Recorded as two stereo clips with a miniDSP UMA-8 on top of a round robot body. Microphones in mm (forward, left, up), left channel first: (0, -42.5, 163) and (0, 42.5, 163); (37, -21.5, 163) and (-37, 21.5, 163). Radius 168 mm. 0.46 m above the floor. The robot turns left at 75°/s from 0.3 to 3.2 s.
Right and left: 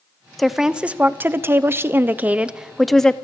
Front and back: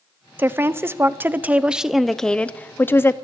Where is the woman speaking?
175° right, 0.8 m; by 3.1 s 20° right, 0.8 m.